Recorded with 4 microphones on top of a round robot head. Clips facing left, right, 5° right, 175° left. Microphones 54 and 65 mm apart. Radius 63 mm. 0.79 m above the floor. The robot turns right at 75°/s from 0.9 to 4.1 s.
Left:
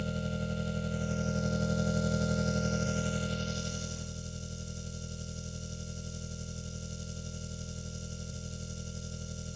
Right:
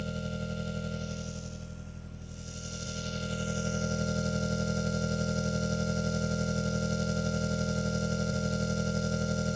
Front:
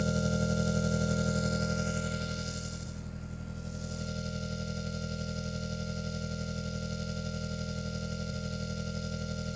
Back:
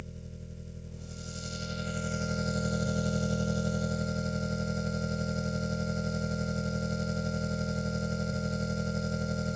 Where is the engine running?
Straight ahead; by 9.6 s 120° right.